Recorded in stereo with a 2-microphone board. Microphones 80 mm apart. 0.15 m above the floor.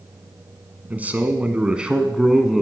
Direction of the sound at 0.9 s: 20° right (ahead or behind).